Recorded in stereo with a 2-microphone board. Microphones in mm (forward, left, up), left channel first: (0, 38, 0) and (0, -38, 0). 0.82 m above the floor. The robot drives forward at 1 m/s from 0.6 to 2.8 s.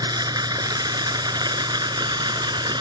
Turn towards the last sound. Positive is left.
turn(degrees=-75)  # may be behind; listen again after turning